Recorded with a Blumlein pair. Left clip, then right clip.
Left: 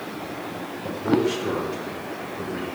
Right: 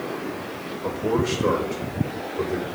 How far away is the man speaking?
About 5 m.